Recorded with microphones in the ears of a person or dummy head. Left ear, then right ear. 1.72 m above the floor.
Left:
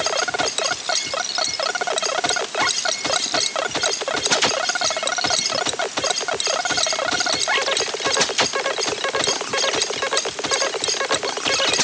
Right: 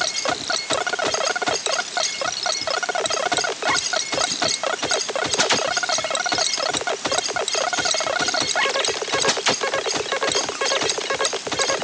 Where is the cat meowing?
No cat meowing in this recording.